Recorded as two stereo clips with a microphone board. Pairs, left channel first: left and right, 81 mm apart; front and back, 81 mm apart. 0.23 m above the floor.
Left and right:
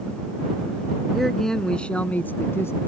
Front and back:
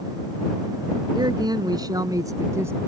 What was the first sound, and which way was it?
A man speaking, 175° left.